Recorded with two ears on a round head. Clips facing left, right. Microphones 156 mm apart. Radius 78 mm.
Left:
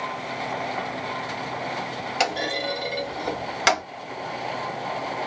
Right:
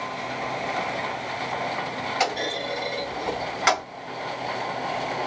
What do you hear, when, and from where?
2.2 s a clunk: 40° left (ahead or behind), 1.9 m